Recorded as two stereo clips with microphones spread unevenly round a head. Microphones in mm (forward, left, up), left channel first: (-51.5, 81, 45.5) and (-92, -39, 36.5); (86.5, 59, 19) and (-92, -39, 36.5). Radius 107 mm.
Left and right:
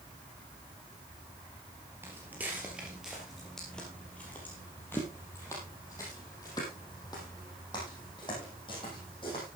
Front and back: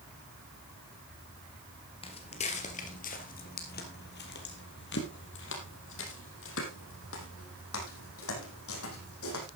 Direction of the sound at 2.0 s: 30° right.